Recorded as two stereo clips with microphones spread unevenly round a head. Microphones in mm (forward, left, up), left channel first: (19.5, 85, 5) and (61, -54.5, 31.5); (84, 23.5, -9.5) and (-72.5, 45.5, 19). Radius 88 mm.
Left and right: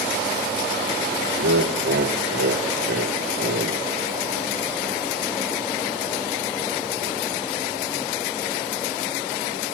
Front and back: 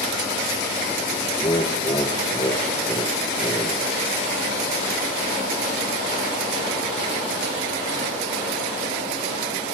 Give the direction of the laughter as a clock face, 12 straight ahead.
3 o'clock.